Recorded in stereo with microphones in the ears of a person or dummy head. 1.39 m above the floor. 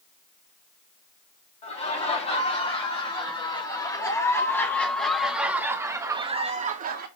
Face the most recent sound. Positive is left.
turn(degrees=-55)  # may be behind; listen again after turning